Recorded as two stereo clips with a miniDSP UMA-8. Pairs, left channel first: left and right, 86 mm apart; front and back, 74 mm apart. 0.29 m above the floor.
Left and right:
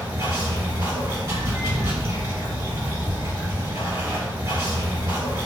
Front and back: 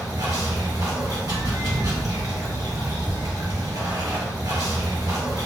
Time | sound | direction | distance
0.0 | running water | 145° right | 1.5 m